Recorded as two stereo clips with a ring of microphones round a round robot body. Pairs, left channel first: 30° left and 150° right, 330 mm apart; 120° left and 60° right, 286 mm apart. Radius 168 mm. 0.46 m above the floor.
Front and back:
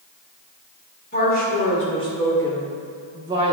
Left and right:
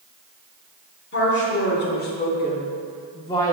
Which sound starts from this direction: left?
A woman speaking, at 1.1 s.